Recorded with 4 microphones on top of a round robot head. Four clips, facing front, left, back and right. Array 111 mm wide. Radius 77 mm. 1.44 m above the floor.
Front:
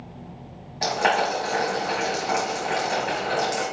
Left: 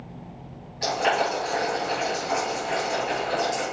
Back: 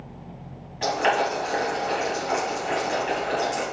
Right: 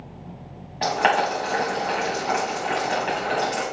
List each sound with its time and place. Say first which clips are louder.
0.8 s boiling: right 3 dB, even; 65° right, 4 m